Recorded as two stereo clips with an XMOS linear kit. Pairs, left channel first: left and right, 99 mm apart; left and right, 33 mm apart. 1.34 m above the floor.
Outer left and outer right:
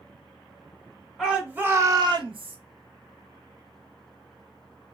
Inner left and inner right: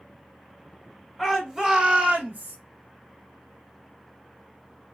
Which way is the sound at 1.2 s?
5° right (ahead or behind).